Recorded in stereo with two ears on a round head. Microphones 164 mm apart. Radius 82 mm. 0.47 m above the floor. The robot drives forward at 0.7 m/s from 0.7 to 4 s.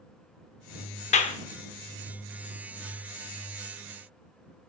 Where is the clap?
40° left (ahead or behind), 0.8 m; by 1.4 s 35° left (ahead or behind), 0.9 m.